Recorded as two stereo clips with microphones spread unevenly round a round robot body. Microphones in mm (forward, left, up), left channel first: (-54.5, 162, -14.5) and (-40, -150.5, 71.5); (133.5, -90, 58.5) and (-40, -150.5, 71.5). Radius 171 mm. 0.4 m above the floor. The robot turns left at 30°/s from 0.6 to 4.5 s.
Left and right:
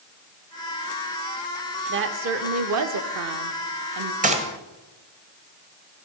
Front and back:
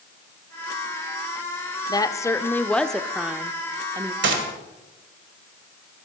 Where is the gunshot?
160° right, 1.7 m; by 4.5 s 165° right, 1.7 m.